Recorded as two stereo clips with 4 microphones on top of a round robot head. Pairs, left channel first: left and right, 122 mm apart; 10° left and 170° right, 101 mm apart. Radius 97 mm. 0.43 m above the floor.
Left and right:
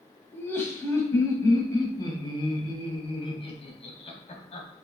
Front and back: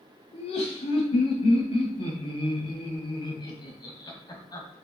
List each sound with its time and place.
0.3 s laughter: 20° left, 4 m; by 4.8 s 60° left, 4 m